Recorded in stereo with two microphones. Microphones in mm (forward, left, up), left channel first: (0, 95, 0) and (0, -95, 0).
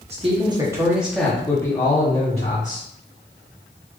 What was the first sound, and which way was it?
A man speaking, 35° right (ahead or behind).